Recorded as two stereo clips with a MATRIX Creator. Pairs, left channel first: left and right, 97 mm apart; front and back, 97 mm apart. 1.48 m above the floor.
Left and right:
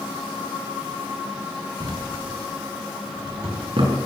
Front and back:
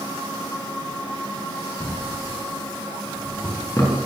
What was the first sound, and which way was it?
A drawer, 60° right.